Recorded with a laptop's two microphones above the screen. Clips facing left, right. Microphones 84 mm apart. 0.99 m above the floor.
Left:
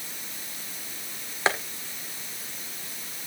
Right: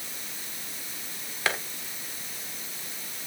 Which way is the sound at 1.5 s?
25° left (ahead or behind).